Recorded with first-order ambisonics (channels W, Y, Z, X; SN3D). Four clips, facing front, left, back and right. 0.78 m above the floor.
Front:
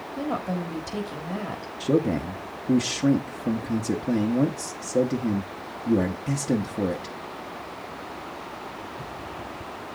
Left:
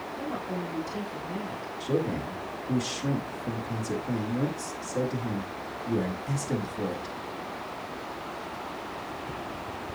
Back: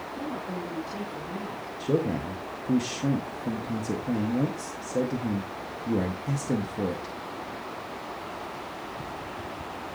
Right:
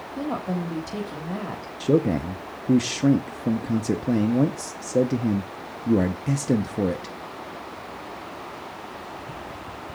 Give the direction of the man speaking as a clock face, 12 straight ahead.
2 o'clock.